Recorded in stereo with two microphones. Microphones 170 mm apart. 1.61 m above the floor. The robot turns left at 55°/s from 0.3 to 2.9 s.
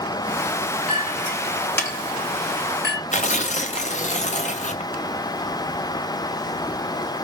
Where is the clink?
35° right (ahead or behind), 4 m; by 3.0 s 70° left (ahead or behind), 4 m.